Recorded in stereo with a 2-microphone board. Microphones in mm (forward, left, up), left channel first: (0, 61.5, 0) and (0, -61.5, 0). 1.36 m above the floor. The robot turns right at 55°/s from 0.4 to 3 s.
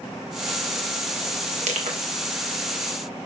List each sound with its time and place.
1.6 s crushing: 65° right (ahead or behind), 2.5 m; by 2.0 s 80° right, 2.5 m